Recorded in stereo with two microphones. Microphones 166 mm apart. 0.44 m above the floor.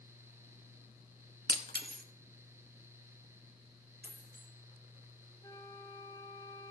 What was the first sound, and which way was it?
Breaking glass, 85° right.